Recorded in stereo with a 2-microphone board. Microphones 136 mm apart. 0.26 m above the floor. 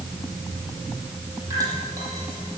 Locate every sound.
1.5 s dripping: 25° right (ahead or behind), 9.5 m